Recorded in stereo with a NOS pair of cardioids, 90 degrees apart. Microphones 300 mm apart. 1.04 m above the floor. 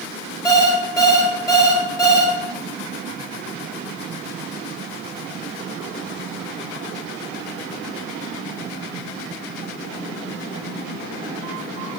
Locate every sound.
0.5 s an alarm clock: 10° left, 0.6 m